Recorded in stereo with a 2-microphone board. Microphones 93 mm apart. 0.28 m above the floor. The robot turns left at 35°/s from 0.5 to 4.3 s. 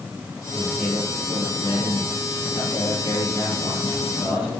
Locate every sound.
0.5 s a man speaking: 170° left, 5.5 m; by 4.6 s 35° left, 5.5 m